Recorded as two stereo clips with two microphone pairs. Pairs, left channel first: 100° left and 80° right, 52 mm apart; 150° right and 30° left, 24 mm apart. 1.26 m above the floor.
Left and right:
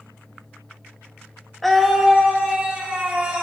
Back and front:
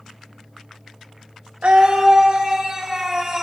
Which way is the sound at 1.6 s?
10° left.